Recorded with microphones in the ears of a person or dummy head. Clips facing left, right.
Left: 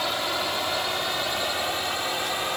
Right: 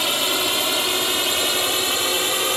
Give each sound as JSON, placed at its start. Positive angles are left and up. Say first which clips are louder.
{"t": 0.0, "sound": "a drone", "louder": "right 4 dB", "side_deg": -45}